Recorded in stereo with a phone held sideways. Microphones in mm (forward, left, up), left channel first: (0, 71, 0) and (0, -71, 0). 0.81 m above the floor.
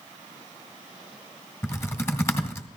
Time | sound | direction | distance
1.6 | typing on a keyboard | 20° left (ahead or behind) | 1.9 m